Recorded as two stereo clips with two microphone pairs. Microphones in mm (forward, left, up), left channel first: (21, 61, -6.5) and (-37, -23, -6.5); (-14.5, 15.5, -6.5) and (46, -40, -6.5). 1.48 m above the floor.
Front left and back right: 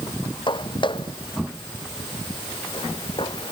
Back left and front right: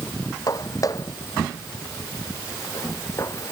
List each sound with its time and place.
0.5 s footsteps: 95° left; by 3.5 s 85° left